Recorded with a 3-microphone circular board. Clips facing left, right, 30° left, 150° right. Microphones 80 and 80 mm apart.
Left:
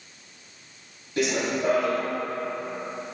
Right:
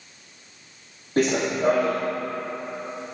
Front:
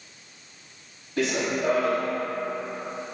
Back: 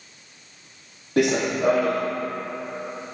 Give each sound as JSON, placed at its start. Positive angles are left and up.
{"t": 1.2, "sound": "running footsteps", "azimuth_deg": -135, "distance_m": 1.3}